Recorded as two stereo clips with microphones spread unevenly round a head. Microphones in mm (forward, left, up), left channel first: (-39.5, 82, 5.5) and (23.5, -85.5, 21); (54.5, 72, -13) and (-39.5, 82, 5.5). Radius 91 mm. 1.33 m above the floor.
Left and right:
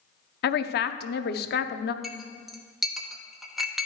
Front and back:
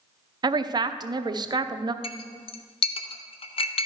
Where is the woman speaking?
130° left, 0.7 m.